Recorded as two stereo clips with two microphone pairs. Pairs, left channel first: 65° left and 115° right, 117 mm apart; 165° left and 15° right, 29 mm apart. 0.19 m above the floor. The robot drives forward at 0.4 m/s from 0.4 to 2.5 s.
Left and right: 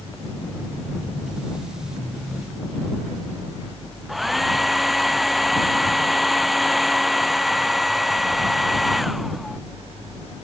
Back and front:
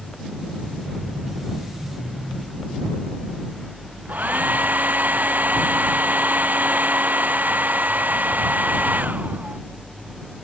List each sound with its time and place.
4.1 s a hair dryer: 30° right